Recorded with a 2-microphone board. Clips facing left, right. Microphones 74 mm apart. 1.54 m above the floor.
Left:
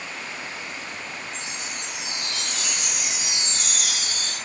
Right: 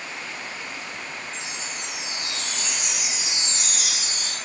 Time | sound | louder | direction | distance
1.3 | a chime | even | 55° left (ahead or behind) | 7.5 m